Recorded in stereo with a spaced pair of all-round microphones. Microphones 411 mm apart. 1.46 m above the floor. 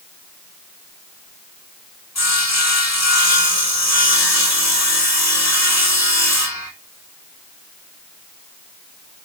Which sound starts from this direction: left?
Sawing, at 2.1 s.